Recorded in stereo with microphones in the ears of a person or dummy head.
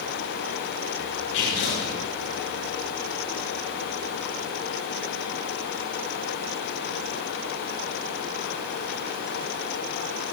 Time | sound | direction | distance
1.3 | tearing paper | 85° left | 7.5 m